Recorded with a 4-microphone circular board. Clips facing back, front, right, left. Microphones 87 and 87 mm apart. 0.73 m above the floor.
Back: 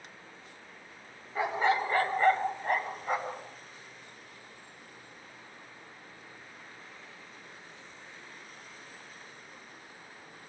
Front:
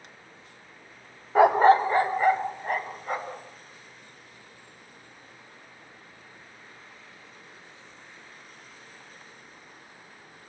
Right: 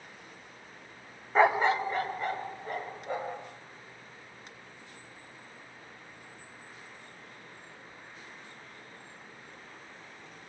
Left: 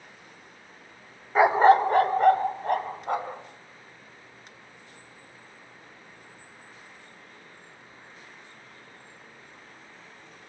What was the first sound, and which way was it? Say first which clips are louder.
A dog barking: front 11 dB, left 7 dB; 5° left.